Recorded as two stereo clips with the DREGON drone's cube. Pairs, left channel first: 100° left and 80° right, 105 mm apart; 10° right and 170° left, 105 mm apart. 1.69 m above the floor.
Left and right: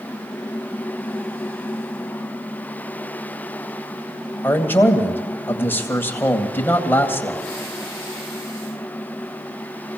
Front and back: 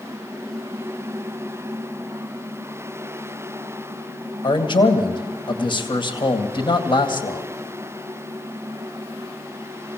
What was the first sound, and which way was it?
A man speaking, 30° left.